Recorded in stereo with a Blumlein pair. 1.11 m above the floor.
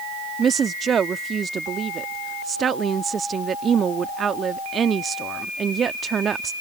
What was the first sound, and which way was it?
A woman speaking, 25° right.